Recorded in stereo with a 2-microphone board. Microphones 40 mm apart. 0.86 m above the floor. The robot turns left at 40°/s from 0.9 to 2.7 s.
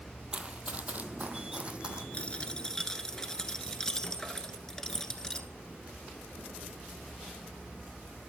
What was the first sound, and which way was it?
Running footsteps, 25° right (ahead or behind).